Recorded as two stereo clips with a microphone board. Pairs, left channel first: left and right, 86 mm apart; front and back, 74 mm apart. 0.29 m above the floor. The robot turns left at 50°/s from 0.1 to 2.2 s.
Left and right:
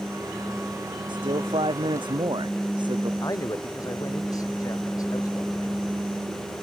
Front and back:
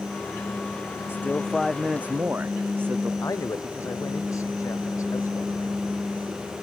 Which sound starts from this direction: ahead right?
A man speaking, at 1.1 s.